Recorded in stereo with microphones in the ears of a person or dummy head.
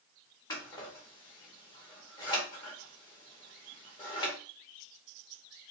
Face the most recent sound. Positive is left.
turn(degrees=20)  # may be behind; listen again after turning